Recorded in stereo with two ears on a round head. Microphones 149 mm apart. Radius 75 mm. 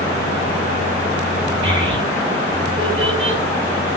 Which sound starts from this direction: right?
A child speaking, at 1.6 s.